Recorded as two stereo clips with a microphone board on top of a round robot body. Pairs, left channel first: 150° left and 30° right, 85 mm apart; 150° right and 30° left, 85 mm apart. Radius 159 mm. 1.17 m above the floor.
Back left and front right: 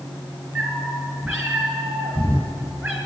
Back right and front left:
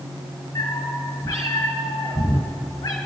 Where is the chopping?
I don't hear chopping.